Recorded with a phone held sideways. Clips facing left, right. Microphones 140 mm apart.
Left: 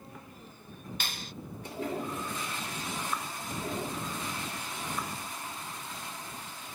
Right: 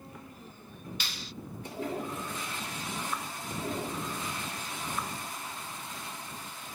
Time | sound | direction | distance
1.0 | a clap | 50° left (ahead or behind) | ?